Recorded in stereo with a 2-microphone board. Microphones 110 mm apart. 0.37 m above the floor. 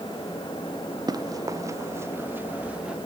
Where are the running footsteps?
35° right (ahead or behind); by 3.0 s 10° right (ahead or behind).